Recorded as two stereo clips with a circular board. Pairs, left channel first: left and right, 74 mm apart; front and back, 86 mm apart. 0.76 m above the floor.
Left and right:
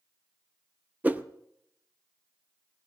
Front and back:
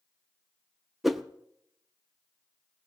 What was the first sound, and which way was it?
A whoosh, 95° right.